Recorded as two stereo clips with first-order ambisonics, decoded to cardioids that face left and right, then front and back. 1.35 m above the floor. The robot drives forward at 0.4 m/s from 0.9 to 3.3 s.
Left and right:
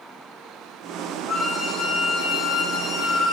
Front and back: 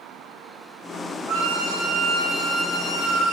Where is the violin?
175° left, 1.4 m; by 3.3 s straight behind, 2 m.